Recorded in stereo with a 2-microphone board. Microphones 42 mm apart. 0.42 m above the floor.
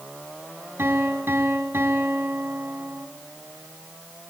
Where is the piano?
70° right (ahead or behind), 3 m.